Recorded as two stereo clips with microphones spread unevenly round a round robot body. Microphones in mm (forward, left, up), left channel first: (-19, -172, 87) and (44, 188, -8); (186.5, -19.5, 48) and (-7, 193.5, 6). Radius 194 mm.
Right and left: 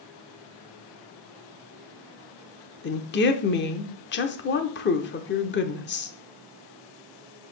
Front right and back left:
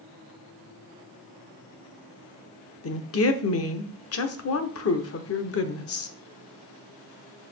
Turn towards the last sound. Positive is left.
turn(degrees=-35)